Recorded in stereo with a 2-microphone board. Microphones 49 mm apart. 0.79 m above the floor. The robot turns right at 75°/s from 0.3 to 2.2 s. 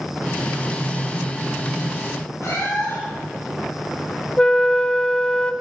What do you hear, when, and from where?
2.4 s a cat meowing: 85° left, 7 m
4.4 s a flute: 20° left (ahead or behind), 0.5 m